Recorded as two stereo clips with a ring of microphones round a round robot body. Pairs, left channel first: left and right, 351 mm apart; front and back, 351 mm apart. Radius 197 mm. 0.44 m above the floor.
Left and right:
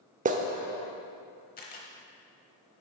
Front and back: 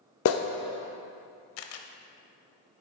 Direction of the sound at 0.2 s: 30° right.